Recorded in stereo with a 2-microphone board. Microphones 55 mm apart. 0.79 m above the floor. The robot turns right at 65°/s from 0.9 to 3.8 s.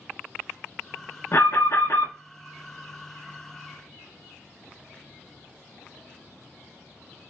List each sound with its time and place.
1.3 s an alarm: 60° left, 1.1 m; by 2.1 s 110° left, 1.1 m